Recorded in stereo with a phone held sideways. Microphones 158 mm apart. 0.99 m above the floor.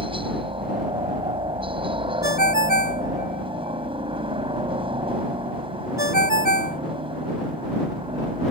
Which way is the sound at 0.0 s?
35° right (ahead or behind).